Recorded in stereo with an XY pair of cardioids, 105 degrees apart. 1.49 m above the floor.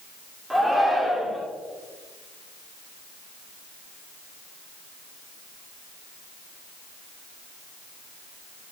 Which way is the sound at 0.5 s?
5° right.